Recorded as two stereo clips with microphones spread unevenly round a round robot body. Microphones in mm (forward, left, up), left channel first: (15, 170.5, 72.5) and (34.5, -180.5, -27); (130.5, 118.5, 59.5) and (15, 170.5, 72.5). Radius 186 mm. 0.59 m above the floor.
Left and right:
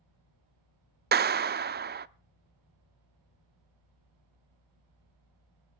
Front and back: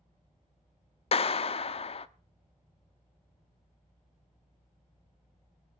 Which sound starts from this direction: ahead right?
A clap, at 1.1 s.